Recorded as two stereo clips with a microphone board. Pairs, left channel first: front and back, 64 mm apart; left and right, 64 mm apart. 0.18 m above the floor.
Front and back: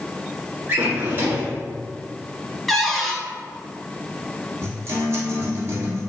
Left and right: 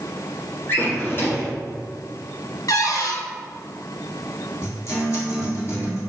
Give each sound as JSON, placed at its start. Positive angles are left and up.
{"t": 0.7, "sound": "a drawer", "azimuth_deg": 135, "distance_m": 1.1}
{"t": 2.7, "sound": "a cupboard door", "azimuth_deg": 90, "distance_m": 0.6}
{"t": 4.6, "sound": "a guitar", "azimuth_deg": 135, "distance_m": 1.3}